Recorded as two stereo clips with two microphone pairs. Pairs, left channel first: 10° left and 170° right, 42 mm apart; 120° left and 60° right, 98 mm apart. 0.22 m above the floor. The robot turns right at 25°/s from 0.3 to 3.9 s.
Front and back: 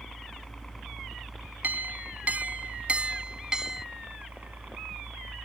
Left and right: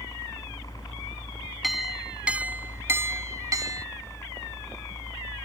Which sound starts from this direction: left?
A helicopter, at 0.0 s.